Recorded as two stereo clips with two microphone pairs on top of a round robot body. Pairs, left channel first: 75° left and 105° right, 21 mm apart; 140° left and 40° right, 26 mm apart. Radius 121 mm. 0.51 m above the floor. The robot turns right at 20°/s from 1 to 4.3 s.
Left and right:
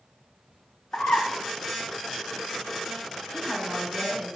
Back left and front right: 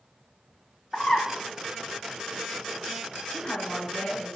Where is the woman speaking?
Straight behind, 4 m; by 4.4 s 160° right, 4 m.